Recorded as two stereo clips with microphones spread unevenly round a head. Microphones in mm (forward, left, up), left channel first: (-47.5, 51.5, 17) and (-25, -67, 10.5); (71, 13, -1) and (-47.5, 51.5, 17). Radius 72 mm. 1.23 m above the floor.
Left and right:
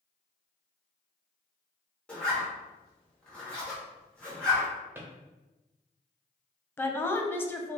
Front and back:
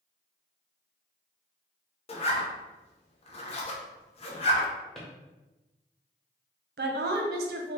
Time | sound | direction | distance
2.1 | a zipper | 20° left | 0.7 m
5.0 | a drawer | 130° right | 0.7 m
6.8 | a woman speaking | 175° left | 0.6 m